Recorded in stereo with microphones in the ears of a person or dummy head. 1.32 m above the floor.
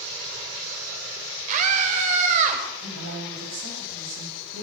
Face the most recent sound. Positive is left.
turn(degrees=-75)  # may be behind; listen again after turning